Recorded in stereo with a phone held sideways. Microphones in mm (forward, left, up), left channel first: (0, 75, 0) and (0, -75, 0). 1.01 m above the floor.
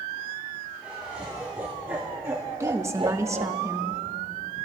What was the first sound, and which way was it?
Laughter, 10° right (ahead or behind).